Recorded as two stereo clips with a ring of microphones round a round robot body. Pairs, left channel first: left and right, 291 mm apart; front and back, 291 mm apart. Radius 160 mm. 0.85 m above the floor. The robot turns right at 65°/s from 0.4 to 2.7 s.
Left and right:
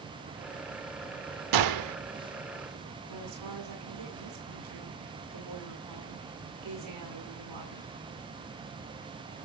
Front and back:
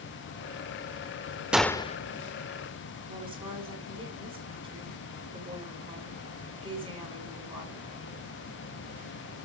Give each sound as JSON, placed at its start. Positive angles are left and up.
{"t": 1.5, "sound": "a gunshot", "azimuth_deg": -95, "distance_m": 0.8}
{"t": 3.1, "sound": "a woman speaking", "azimuth_deg": -105, "distance_m": 7.5}